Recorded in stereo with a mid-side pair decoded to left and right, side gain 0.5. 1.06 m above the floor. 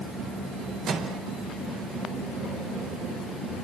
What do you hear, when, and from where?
0.9 s a microwave: 55° right, 4.5 m